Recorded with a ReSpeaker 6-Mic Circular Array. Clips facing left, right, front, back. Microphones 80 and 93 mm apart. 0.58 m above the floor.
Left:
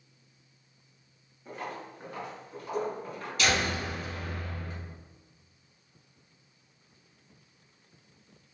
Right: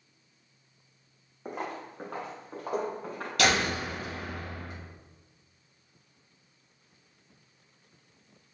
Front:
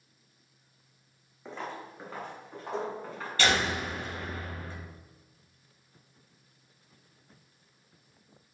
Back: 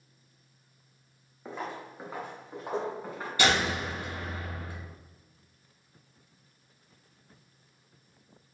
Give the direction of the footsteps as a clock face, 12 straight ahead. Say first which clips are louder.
Right 3 dB, back 1 dB; 3 o'clock.